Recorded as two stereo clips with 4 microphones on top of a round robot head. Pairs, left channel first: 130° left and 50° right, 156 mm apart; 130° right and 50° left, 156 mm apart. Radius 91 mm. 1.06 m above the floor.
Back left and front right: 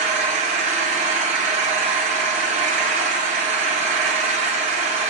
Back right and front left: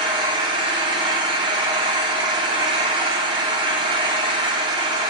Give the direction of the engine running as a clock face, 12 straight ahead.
12 o'clock.